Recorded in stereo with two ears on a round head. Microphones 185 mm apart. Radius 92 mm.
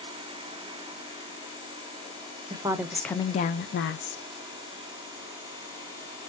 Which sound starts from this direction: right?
A woman speaking, at 2.5 s.